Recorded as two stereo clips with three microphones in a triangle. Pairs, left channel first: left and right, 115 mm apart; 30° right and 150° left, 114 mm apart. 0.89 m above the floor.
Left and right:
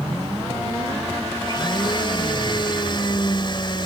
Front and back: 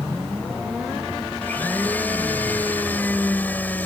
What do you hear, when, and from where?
1.4 s a blender: 45° left